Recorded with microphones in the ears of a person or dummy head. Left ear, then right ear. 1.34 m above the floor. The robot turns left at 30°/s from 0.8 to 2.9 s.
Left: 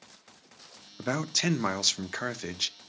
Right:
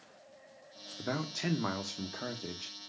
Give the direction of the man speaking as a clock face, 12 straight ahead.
9 o'clock.